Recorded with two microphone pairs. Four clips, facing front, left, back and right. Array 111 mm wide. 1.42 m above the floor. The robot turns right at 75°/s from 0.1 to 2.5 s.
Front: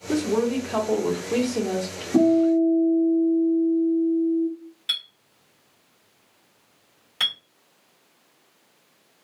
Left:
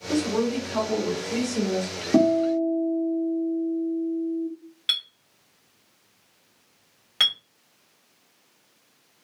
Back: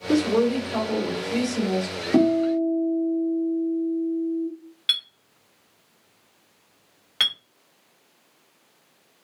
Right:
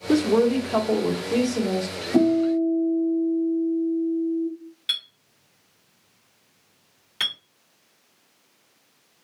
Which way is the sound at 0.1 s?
105° right.